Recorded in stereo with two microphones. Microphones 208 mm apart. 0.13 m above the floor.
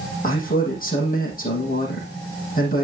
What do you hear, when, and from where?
0.2 s a man speaking: 45° left (ahead or behind), 6.5 m